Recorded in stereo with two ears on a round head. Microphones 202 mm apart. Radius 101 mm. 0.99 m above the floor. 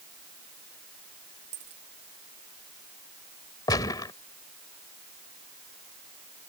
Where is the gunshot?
20° left (ahead or behind).